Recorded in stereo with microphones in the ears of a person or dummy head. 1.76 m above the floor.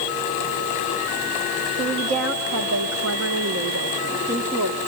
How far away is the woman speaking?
About 2.5 m.